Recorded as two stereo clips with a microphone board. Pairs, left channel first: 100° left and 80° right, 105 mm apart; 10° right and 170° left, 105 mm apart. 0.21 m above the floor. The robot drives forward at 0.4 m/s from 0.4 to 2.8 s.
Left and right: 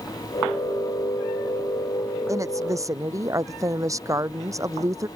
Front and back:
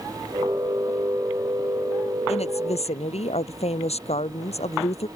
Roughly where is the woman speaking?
Ahead.